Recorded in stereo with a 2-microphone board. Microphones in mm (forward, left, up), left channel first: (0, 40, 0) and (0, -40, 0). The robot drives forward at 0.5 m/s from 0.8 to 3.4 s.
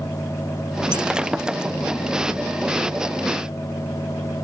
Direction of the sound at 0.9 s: 10° right (ahead or behind).